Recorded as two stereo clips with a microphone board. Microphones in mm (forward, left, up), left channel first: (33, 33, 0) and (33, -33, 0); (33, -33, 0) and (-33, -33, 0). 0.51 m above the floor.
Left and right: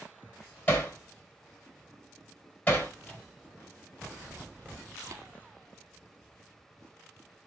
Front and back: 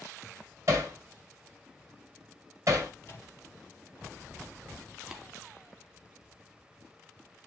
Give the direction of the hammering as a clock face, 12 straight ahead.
7 o'clock.